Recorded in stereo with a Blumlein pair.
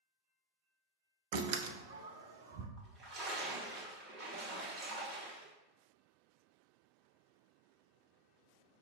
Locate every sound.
1.3 s a door slam: 50° right, 0.5 m
2.8 s a splash: 25° right, 1.3 m